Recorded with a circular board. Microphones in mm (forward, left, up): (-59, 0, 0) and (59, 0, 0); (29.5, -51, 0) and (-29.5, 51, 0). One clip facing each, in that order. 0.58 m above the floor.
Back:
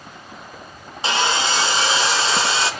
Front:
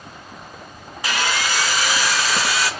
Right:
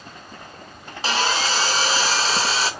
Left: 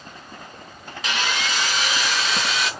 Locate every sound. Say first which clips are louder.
1.0 s sawing: back 3 dB, right 4 dB; 115° right, 0.6 m